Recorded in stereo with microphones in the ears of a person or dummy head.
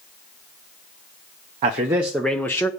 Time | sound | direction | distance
1.6 | a man speaking | 30° right (ahead or behind) | 0.5 m